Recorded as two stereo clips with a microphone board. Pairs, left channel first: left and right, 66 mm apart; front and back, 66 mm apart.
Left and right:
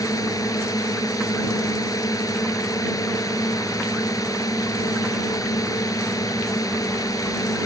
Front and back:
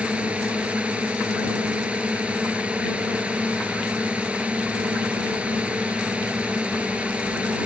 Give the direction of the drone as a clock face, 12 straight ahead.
8 o'clock.